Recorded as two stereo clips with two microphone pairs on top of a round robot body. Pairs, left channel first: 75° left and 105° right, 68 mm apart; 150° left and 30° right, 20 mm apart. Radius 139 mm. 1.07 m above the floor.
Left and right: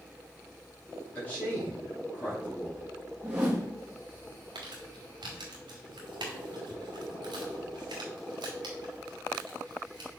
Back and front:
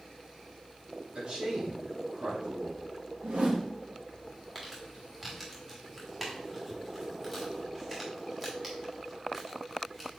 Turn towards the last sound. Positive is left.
turn(degrees=-105)